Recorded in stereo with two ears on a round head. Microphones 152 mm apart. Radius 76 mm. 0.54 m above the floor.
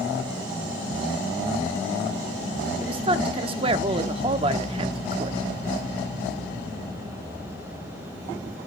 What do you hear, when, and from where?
2.8 s a woman speaking: 30° right (ahead or behind), 0.8 m